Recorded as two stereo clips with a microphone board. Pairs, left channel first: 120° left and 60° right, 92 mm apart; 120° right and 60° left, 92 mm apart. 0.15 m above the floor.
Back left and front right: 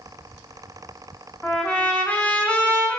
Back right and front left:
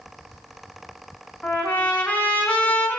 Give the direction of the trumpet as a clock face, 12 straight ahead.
6 o'clock.